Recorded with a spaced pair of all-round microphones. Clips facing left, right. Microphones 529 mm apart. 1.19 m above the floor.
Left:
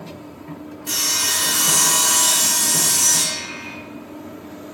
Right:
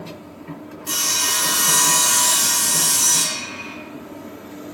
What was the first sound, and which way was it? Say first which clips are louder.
Sawing: even; 5° left (ahead or behind).